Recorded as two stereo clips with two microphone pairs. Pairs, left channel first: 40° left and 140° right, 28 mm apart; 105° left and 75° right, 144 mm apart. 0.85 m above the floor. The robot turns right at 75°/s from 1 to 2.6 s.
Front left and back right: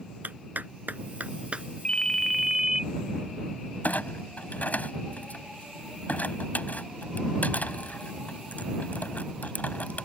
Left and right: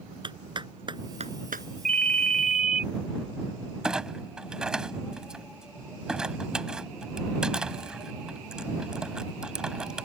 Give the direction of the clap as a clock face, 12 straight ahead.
4 o'clock.